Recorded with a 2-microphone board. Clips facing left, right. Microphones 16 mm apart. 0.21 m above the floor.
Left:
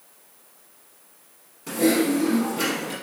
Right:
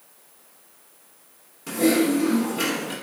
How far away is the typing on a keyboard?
About 1.0 m.